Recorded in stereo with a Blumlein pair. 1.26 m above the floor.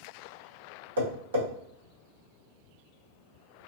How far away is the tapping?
About 1.3 m.